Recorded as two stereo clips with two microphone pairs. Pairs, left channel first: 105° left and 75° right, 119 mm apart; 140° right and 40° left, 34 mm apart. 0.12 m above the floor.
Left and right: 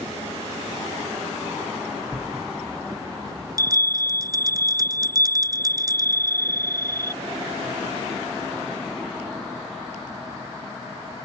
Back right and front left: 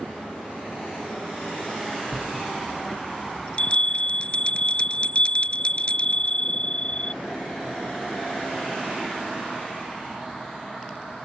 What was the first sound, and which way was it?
A bell, 115° right.